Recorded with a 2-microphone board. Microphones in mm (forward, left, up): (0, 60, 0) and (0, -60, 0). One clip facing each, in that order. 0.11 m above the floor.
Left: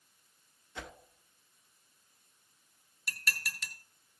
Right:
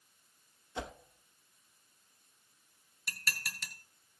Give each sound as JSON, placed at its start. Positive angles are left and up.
{"t": 0.8, "sound": "a whoosh", "side_deg": -25, "distance_m": 0.6}
{"t": 3.1, "sound": "dishes clattering", "side_deg": 0, "distance_m": 1.1}